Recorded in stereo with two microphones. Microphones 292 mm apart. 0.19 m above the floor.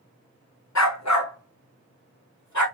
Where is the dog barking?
65° left (ahead or behind), 0.9 m; by 2.6 s 80° left, 2.5 m.